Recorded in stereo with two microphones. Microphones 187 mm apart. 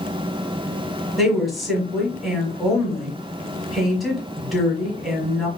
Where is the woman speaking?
Centre (ahead or behind), 1.4 m.